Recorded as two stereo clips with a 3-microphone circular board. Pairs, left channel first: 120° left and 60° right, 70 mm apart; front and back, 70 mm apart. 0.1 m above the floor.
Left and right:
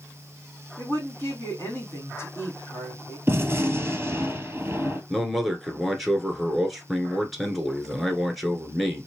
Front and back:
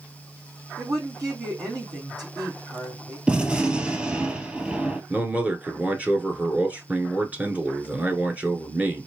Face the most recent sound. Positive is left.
turn(degrees=-150)